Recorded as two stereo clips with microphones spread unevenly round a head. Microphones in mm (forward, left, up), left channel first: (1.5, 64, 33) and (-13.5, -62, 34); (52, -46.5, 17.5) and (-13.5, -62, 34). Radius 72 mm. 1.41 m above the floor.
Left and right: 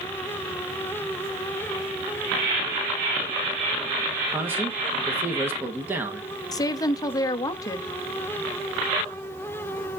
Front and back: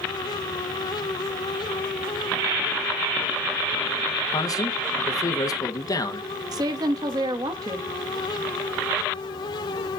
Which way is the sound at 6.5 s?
145° left.